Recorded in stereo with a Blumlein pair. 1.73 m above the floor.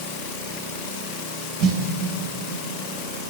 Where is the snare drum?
35° right, 4.5 m.